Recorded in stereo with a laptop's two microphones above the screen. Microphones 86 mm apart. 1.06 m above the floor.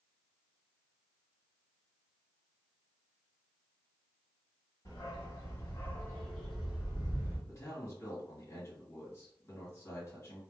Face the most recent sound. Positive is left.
turn(degrees=30)  # may be behind; listen again after turning